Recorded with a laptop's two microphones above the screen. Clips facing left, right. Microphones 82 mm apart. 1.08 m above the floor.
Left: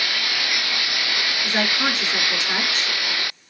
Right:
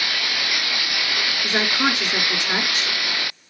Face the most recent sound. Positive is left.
turn(degrees=-20)  # may be behind; listen again after turning